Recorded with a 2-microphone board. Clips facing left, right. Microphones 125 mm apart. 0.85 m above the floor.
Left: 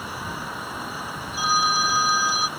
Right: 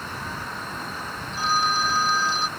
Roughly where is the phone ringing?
Centre.